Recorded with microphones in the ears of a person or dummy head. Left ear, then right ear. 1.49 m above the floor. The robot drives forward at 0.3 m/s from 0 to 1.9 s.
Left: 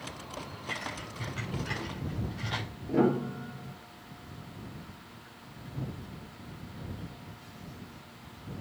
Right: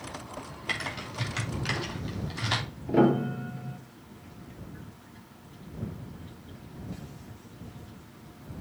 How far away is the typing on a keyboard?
About 3.5 m.